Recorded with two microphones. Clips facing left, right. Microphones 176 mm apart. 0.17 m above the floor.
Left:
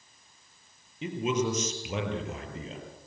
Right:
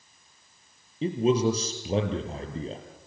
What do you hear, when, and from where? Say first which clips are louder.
1.0 s a man speaking: right 6 dB; 35° right (ahead or behind), 4 m